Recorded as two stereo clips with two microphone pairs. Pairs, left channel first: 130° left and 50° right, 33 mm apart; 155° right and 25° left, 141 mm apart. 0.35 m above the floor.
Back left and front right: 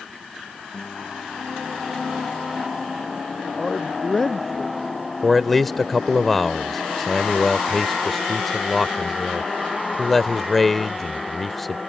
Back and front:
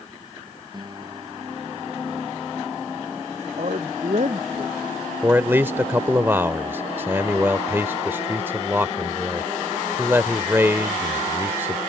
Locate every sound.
0.7 s a guitar: 80° left
3.6 s a man speaking: 60° left
5.2 s a man speaking: 60° left